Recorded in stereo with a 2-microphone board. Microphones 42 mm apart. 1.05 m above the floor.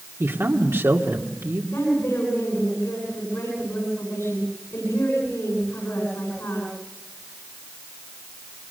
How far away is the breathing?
No breathing in this recording.